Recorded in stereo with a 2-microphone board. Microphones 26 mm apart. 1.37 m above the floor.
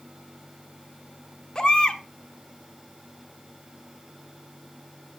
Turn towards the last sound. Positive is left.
turn(degrees=30)  # may be behind; listen again after turning